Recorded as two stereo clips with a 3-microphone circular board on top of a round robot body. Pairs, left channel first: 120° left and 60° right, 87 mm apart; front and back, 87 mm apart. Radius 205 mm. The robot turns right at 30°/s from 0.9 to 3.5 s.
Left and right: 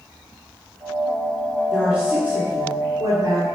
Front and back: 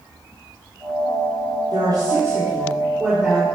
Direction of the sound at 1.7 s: 145° right.